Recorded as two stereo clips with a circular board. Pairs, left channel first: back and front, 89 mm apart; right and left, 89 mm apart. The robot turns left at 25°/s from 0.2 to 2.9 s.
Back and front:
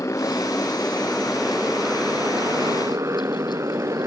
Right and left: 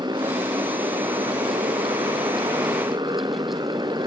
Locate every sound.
0.0 s a motorcycle: 120° left; by 4.1 s 55° left